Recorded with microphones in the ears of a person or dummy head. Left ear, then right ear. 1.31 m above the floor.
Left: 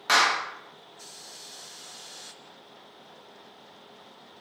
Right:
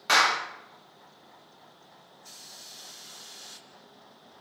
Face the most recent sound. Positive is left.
turn(degrees=5)  # may be behind; listen again after turning